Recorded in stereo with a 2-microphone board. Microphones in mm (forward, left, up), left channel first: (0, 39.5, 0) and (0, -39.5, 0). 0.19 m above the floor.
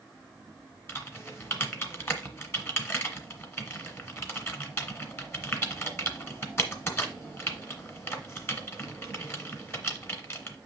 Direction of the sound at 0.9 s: 30° left (ahead or behind).